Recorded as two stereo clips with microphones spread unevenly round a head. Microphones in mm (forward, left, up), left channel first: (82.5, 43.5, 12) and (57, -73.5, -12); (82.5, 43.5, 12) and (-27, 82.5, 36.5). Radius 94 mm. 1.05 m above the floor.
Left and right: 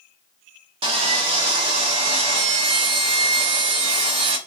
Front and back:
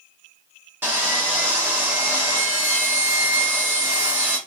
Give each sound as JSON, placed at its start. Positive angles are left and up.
{"t": 0.8, "sound": "sawing", "azimuth_deg": -115, "distance_m": 0.6}